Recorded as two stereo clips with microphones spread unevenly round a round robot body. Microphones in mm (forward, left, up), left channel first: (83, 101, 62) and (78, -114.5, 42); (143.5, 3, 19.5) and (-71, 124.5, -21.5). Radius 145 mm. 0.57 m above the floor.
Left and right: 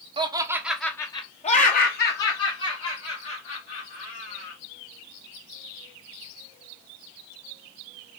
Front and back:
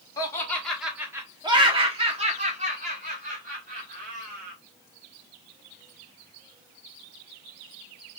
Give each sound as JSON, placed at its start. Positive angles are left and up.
{"t": 0.2, "sound": "laughter", "azimuth_deg": -110, "distance_m": 0.9}